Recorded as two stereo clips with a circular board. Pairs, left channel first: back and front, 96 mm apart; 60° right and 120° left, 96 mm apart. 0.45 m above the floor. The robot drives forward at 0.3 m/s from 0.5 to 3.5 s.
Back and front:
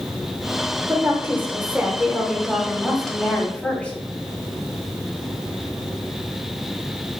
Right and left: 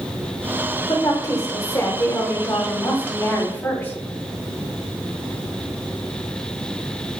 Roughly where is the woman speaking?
Ahead right.